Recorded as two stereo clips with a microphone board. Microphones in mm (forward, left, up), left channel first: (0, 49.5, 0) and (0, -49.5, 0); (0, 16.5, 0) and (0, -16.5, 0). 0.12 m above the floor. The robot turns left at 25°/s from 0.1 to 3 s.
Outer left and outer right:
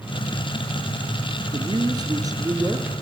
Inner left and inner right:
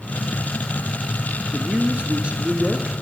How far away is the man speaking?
About 2 m.